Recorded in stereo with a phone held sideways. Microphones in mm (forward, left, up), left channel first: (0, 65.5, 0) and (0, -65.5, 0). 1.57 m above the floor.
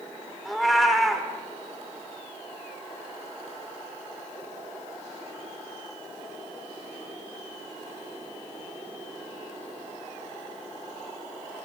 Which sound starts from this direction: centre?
A cat meowing, at 0.5 s.